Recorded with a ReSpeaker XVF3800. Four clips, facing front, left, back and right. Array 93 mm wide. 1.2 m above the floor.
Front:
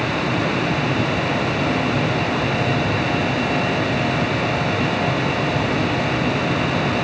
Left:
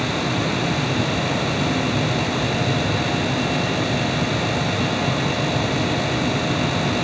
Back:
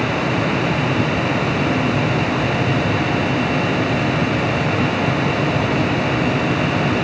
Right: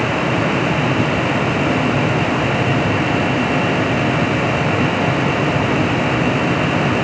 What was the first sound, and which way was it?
Only background noise.